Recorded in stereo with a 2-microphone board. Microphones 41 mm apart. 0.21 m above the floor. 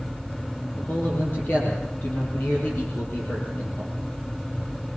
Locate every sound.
0.7 s a man speaking: 55° left (ahead or behind), 6 m